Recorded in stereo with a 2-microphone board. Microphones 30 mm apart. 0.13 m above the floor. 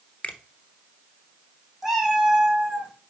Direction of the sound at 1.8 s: 10° right (ahead or behind).